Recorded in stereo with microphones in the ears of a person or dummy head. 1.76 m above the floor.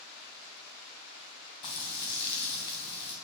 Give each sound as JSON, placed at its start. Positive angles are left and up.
{"t": 1.6, "sound": "frying", "side_deg": 35, "distance_m": 2.5}